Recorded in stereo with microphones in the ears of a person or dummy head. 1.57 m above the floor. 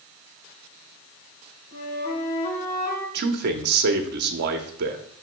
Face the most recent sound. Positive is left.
turn(degrees=-50)  # may be behind; listen again after turning